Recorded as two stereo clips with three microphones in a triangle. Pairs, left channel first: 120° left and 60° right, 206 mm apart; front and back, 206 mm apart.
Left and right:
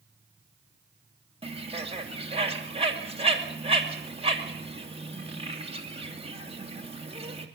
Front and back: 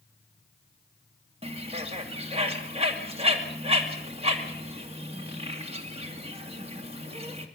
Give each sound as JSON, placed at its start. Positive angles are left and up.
{"t": 1.4, "sound": "a bird", "azimuth_deg": -120, "distance_m": 2.5}